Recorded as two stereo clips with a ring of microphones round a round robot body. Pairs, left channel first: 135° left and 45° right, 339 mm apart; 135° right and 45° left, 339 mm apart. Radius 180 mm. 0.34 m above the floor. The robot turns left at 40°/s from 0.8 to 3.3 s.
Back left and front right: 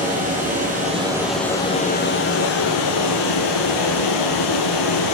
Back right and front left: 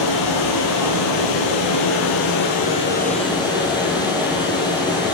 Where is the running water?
115° right, 2.5 m; by 5.1 s 145° left, 2.5 m.